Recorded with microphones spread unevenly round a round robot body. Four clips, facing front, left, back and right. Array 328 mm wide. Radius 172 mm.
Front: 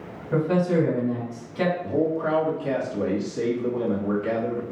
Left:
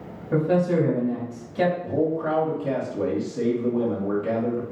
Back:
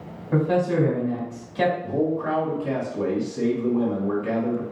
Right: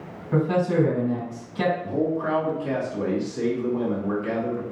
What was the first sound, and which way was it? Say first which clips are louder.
A man speaking: left 1 dB, even; 105° left.